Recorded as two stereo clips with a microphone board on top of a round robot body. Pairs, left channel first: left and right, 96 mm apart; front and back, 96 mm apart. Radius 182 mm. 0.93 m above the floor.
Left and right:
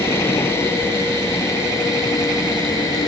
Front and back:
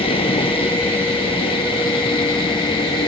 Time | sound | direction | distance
0.0 | a vehicle | 25° left | ?